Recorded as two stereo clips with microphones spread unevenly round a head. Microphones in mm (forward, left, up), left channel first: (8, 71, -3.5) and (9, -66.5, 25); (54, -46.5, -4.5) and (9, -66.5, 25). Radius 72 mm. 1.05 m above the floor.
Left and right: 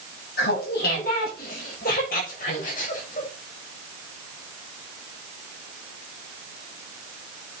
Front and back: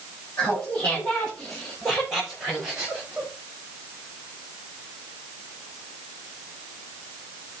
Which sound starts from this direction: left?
Laughter, at 0.4 s.